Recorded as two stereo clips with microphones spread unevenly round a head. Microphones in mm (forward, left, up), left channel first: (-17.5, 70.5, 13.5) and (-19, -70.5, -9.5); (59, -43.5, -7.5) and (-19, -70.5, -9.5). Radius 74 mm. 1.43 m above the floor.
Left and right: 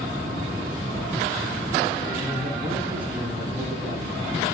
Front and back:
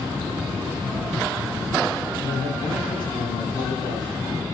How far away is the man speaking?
About 7 m.